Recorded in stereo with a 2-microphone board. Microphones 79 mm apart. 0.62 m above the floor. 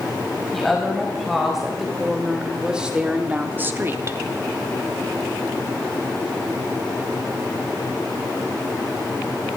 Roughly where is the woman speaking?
Centre.